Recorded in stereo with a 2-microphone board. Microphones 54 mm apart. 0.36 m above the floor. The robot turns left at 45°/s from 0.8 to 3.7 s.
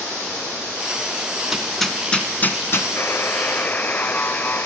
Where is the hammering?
10° right (ahead or behind), 1.6 m; by 2.9 s 50° left (ahead or behind), 1.6 m.